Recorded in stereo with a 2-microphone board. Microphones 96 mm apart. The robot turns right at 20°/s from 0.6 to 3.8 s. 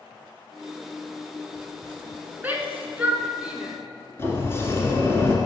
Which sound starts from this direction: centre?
A shout, at 2.4 s.